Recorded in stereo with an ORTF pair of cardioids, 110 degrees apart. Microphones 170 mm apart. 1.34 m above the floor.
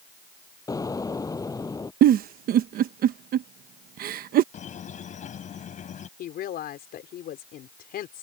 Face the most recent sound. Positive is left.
turn(degrees=65)